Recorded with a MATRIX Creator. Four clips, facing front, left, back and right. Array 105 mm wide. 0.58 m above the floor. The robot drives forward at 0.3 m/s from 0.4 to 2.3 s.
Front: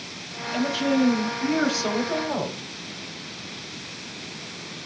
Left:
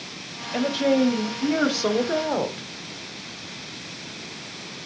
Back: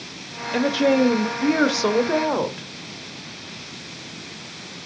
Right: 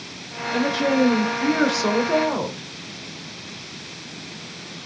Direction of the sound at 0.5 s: 160° right.